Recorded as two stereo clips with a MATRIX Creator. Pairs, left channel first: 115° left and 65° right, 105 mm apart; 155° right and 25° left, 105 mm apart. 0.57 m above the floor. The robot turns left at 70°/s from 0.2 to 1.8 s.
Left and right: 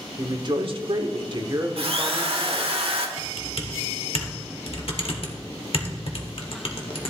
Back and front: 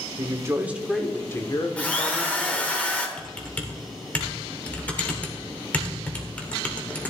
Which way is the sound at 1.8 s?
80° right.